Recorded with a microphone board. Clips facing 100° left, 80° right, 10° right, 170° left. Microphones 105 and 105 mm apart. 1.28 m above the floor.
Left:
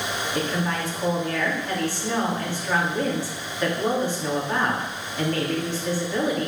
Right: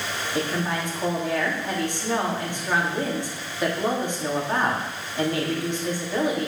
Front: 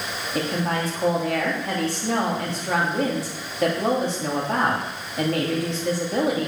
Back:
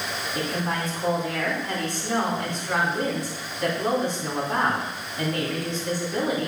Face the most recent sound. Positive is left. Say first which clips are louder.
# right 1 dB, front 4 dB
turn(degrees=-5)